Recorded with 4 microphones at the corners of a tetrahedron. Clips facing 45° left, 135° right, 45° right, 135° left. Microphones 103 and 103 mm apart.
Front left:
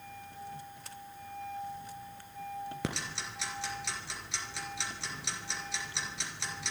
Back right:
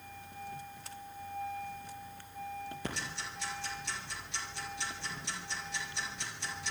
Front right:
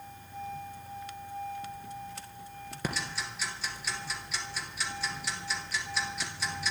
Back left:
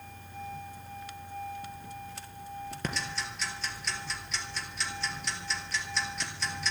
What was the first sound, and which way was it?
Ticking, 40° left.